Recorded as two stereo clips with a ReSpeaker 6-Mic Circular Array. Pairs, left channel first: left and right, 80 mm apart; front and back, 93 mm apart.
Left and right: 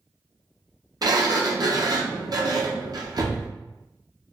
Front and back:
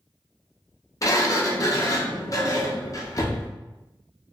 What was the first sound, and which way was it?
A sliding door, 55° right.